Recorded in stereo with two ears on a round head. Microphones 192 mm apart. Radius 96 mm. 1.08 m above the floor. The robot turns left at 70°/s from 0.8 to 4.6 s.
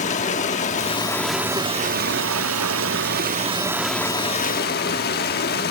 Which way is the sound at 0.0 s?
35° left.